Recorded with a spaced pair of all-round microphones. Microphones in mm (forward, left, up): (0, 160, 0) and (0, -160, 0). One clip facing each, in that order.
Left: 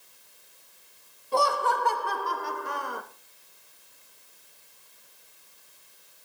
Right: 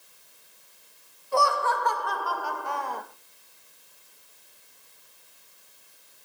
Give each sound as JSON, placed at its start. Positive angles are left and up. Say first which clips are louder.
{"t": 1.3, "sound": "laughter", "louder": "even", "side_deg": 45, "distance_m": 1.9}